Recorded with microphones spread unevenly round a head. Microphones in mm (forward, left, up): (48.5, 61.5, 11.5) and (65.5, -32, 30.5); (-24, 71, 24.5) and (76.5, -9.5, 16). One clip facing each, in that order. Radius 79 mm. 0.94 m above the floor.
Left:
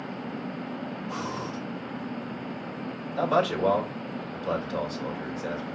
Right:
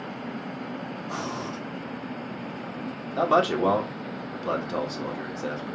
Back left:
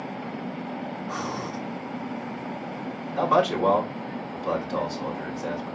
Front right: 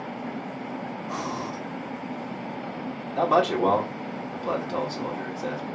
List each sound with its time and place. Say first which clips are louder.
1.1 s breathing: right 2 dB, front right 1 dB; 110° right, 2.5 m
3.1 s a man speaking: right 3 dB, even; 105° right, 2 m